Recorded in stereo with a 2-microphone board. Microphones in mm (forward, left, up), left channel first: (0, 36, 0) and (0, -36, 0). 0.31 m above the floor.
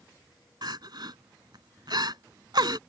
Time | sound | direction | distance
0.6 | crying | 70° right (ahead or behind) | ?